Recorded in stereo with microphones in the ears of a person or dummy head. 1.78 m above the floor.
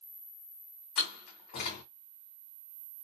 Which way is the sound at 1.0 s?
45° left (ahead or behind).